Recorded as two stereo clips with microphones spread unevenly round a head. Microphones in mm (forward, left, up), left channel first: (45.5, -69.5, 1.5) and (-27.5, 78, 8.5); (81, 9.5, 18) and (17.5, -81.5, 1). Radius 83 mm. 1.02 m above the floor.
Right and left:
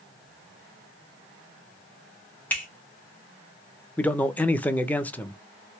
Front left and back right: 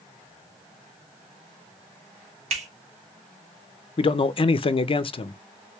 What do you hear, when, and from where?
2.5 s a finger snap: 145° right, 1.1 m
4.0 s a man speaking: 15° left, 0.5 m